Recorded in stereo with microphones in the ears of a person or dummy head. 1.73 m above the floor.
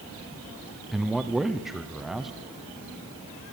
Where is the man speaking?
5° right (ahead or behind), 1.0 m.